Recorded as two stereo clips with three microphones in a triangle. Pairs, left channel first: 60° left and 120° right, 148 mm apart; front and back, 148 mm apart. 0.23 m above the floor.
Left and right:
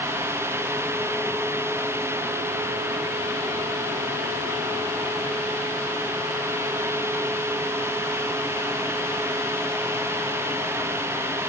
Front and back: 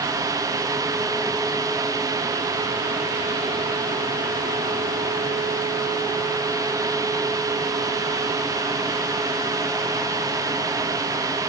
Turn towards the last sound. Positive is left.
No sound to turn to.